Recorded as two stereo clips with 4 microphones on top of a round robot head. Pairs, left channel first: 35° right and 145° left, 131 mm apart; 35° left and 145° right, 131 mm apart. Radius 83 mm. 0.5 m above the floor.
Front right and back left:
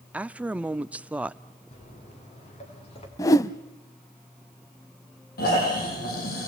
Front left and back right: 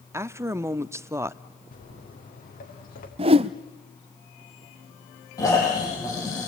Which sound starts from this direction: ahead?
Footsteps, at 1.7 s.